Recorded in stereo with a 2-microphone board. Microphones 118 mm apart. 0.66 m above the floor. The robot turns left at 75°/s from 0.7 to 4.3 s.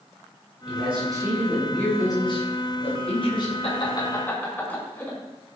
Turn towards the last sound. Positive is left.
turn(degrees=15)  # may be behind; listen again after turning